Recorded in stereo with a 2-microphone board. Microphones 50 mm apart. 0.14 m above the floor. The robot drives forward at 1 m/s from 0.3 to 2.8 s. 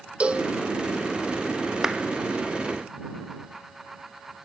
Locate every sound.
0.2 s a cowbell: 25° right (ahead or behind), 1.2 m; by 0.5 s 30° right (ahead or behind), 1.0 m
1.8 s a clap: 10° right (ahead or behind), 1.4 m